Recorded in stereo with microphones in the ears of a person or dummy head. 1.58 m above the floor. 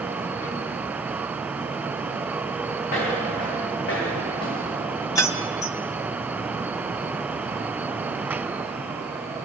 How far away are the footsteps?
About 4 m.